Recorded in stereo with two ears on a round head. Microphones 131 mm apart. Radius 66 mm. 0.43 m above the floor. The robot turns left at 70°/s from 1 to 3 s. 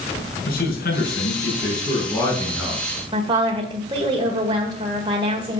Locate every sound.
0.5 s a man speaking: 105° left, 5.5 m; by 2.9 s 30° right, 5.5 m
3.1 s a woman speaking: 30° right (ahead or behind), 2.0 m